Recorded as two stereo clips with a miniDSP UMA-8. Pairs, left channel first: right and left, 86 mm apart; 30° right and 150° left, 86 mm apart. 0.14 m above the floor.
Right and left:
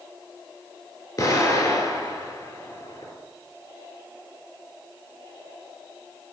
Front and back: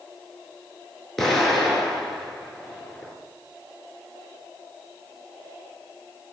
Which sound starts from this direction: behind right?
An explosion, at 1.2 s.